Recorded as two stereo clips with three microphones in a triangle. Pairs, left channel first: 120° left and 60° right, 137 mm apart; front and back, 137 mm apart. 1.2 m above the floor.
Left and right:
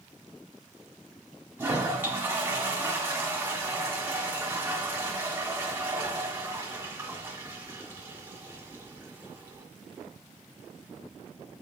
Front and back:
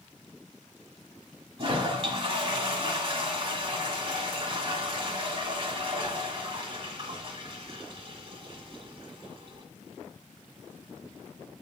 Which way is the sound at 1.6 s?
135° right.